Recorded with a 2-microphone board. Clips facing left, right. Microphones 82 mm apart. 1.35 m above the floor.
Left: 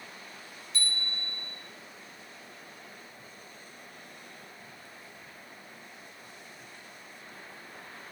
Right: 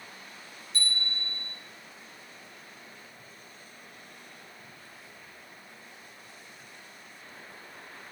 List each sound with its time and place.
0.7 s a bicycle bell: 35° right (ahead or behind), 6 m